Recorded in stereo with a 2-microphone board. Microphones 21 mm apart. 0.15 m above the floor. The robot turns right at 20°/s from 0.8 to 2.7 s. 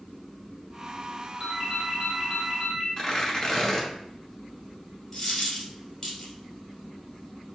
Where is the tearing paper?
10° left (ahead or behind), 1.3 m.